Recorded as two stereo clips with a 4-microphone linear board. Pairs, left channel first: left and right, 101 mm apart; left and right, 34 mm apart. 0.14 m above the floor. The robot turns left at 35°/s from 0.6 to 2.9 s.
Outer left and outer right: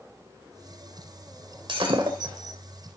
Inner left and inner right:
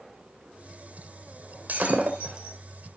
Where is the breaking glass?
60° right (ahead or behind), 2.0 m; by 2.6 s 30° right (ahead or behind), 2.0 m.